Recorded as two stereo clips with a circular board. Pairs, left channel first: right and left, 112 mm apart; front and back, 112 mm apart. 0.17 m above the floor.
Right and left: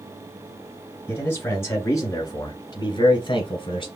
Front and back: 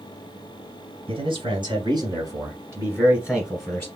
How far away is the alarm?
No alarm in this recording.